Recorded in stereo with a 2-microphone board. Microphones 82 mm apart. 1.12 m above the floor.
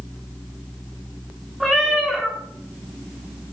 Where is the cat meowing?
Centre (ahead or behind), 1.3 m.